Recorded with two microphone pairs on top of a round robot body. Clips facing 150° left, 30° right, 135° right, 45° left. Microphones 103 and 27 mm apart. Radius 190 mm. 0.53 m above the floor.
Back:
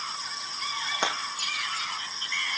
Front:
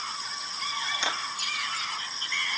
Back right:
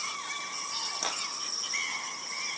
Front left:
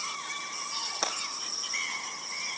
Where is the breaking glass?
105° left, 8 m.